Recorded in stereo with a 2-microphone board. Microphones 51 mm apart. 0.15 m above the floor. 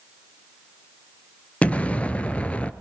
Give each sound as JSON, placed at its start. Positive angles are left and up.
{"t": 1.6, "sound": "an explosion", "side_deg": 25, "distance_m": 1.2}